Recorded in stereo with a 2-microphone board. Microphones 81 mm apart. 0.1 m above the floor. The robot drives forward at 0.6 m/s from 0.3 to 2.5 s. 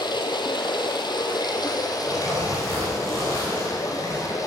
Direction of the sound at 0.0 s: 70° left (ahead or behind).